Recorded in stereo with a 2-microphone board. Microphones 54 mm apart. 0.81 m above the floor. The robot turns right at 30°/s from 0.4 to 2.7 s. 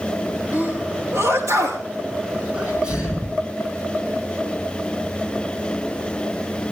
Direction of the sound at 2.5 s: 20° right (ahead or behind).